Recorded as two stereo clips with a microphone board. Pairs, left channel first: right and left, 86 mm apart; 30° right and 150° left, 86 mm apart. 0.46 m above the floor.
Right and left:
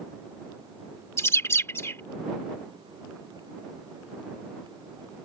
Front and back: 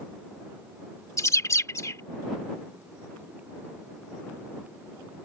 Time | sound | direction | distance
1.2 | a bird | 50° right | ?